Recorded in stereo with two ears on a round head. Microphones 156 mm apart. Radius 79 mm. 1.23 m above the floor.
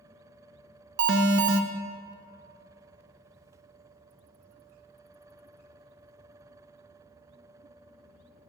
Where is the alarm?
65° right (ahead or behind), 0.7 m.